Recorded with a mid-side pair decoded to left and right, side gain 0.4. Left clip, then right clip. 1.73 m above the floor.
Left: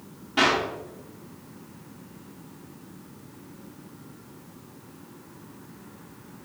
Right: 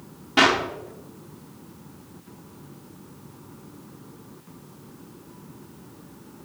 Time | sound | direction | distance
0.4 | a clap | 55° right | 3 m